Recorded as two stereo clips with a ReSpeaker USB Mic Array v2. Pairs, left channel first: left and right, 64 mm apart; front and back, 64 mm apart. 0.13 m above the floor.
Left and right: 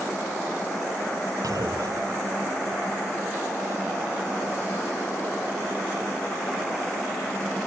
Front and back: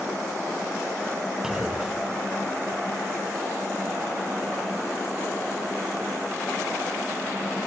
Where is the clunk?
100° right.